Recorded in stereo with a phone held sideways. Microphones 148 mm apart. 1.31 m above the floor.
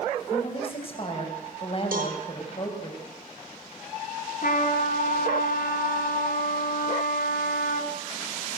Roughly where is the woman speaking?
Left.